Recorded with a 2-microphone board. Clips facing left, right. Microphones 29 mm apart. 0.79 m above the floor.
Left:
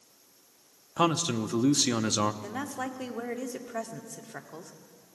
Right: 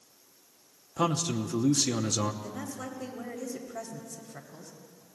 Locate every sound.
1.0 s a man speaking: 30° left (ahead or behind), 0.8 m
2.4 s a woman speaking: 70° left (ahead or behind), 1.7 m